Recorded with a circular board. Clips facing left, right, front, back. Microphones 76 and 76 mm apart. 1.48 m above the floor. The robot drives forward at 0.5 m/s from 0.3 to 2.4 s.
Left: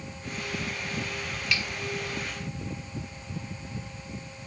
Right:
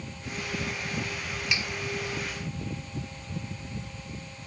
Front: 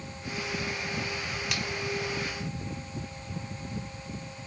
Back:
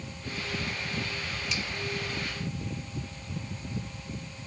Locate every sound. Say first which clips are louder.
1.5 s a finger snap: left 1 dB, even; 20° right